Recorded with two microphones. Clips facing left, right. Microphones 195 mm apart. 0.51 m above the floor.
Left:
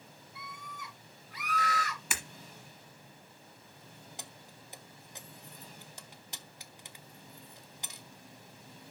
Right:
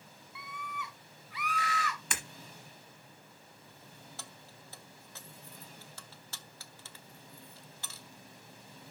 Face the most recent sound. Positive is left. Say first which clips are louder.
# left 1 dB
turn(degrees=15)  # may be behind; listen again after turning